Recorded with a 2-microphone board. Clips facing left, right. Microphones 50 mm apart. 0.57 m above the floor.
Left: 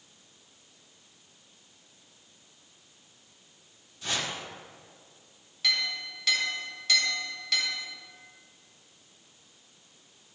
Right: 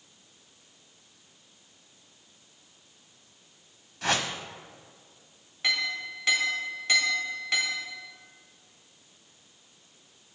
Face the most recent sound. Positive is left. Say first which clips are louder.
# right 2 dB
turn(degrees=-25)  # may be behind; listen again after turning